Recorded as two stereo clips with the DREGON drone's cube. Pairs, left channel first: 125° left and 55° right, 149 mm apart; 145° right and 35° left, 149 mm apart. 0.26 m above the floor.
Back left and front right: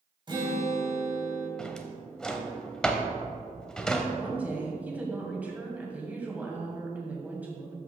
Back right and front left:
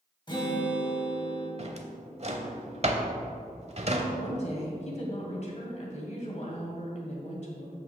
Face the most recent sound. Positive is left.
turn(degrees=-135)